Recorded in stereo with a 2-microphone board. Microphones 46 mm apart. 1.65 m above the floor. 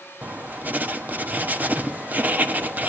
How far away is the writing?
About 1.2 m.